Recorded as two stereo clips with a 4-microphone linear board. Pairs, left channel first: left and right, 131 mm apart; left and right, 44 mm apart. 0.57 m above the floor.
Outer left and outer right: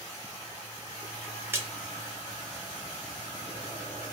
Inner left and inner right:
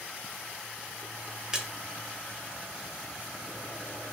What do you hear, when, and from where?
1.5 s a splash: 15° right (ahead or behind), 0.7 m